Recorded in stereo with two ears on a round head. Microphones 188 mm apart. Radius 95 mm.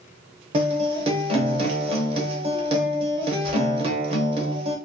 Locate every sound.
0.5 s a guitar: 25° right (ahead or behind), 0.7 m